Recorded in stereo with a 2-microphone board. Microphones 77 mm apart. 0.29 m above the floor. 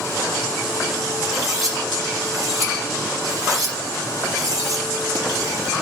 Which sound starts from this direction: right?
Cutlery clinking, at 1.2 s.